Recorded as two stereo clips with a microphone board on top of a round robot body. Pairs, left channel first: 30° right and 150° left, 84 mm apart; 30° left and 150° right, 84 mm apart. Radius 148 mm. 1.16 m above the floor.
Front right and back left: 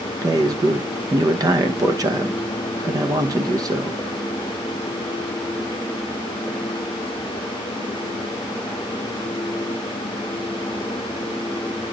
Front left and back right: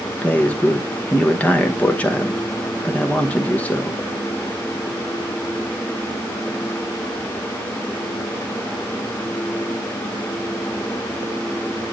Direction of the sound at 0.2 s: 105° left.